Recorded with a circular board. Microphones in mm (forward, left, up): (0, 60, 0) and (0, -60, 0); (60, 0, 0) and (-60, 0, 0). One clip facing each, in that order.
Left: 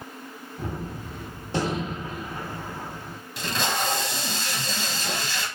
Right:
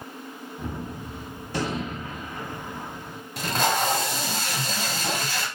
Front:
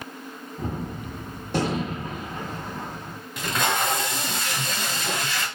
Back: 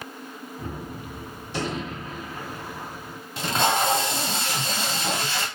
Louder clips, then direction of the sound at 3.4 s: Right 4 dB, back 2 dB; 125° right.